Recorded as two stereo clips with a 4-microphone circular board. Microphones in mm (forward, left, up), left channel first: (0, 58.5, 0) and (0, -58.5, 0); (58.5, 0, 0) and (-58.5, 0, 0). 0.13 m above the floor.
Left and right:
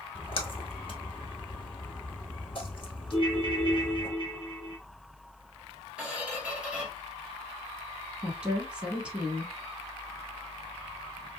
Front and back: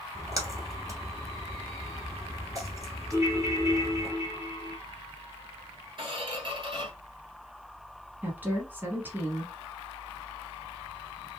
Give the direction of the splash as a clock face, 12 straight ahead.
8 o'clock.